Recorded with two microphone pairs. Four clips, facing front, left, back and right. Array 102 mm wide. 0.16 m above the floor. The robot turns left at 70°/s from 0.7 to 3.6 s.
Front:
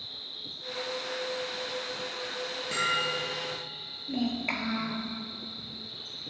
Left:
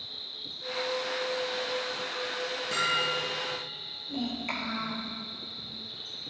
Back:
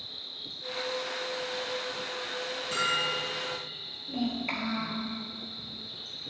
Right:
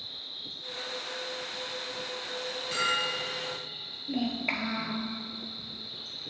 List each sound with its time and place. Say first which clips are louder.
0.0 s an insect: even, even; 125° left, 3.5 m; by 6.3 s 80° right, 3.5 m
2.7 s a bell: left 1 dB, front 1 dB; 35° left, 3.5 m; by 3.4 s 15° right, 3.5 m
4.1 s a child speaking: right 3 dB, front 1 dB; 60° right, 2 m